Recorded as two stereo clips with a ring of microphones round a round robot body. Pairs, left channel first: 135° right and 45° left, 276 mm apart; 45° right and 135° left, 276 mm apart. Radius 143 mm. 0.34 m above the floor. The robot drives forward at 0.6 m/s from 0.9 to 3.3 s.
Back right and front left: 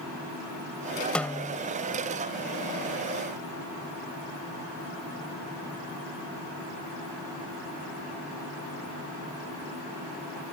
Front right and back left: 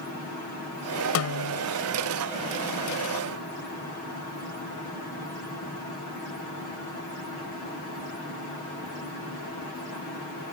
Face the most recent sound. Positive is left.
turn(degrees=-100)